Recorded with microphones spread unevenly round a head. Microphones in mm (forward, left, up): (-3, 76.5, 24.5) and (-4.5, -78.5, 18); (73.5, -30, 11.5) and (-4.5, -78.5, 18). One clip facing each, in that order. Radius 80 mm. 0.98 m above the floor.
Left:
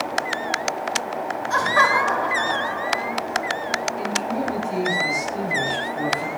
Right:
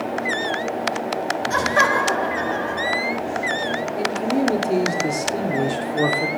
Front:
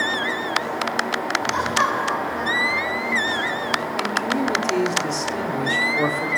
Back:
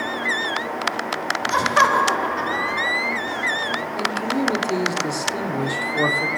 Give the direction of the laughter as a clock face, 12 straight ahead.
5 o'clock.